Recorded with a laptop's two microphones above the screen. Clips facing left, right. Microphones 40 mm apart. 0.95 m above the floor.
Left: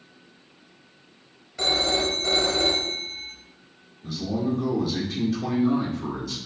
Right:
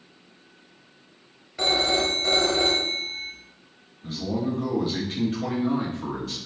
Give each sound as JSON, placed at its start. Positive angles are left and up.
{"t": 1.6, "sound": "a phone ringing", "side_deg": -15, "distance_m": 1.0}
{"t": 4.0, "sound": "a man speaking", "side_deg": -40, "distance_m": 1.2}